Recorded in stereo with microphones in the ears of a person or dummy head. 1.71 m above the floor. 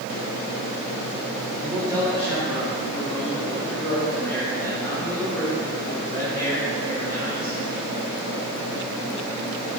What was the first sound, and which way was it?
A man speaking, 15° right (ahead or behind).